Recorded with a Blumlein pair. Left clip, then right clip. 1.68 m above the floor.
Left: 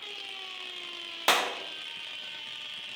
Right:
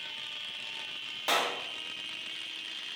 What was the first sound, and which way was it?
A clap, 60° left.